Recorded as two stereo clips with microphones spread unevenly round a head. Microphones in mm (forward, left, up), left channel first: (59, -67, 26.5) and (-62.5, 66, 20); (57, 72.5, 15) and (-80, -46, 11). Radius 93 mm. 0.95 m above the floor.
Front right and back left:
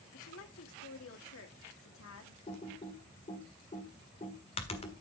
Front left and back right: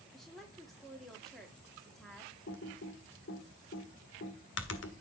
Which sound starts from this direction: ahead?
Typing on a keyboard, at 2.5 s.